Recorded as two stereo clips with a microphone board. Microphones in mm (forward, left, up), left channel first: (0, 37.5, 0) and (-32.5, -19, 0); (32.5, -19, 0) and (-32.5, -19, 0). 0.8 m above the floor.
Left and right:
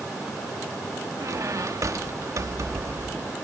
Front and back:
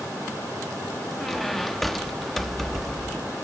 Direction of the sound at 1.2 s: 90° right.